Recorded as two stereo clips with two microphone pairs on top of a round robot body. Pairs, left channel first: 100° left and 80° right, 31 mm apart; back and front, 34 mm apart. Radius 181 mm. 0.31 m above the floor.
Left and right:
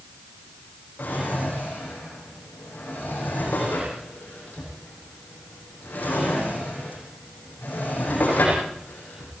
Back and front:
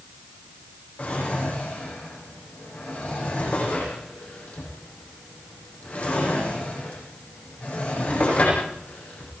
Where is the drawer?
135° left, 9.5 m.